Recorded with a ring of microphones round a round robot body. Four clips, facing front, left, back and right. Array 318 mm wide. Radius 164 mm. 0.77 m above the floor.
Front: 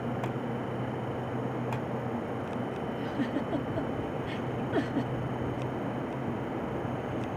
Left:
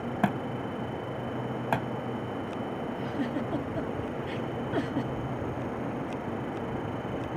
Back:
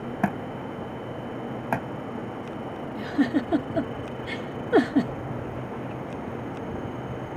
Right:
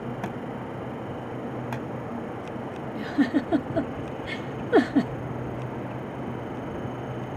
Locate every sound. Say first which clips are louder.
0.2 s a thud: left 3 dB, back 4 dB; 150° left
3.0 s a giggle: right 11 dB, back 10 dB; 135° right